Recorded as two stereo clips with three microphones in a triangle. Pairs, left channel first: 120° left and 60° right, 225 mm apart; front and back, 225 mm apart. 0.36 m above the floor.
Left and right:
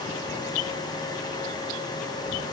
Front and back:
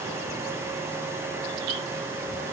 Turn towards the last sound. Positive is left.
No sound to turn to.